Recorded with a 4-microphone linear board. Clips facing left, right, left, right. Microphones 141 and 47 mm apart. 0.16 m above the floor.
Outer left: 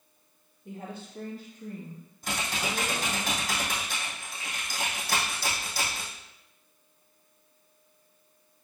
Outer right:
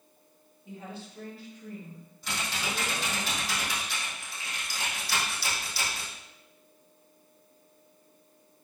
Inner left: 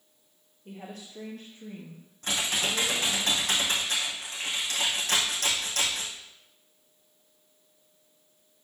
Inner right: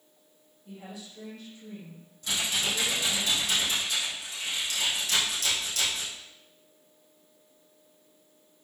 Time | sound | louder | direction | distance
0.7 | a woman speaking | outer left 2 dB, inner left 1 dB | 55° left (ahead or behind) | 3.5 m
2.2 | typing on a keyboard | outer left 2 dB, inner left 1 dB | 45° left (ahead or behind) | 3 m